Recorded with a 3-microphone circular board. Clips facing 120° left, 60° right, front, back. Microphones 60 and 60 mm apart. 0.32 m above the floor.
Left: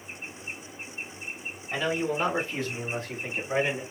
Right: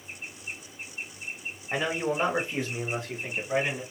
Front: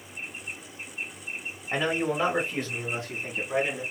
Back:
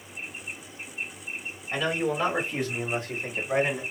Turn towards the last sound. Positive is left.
turn(degrees=-145)